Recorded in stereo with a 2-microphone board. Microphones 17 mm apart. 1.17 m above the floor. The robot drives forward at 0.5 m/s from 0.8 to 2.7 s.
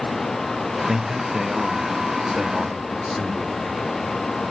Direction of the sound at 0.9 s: 15° right (ahead or behind).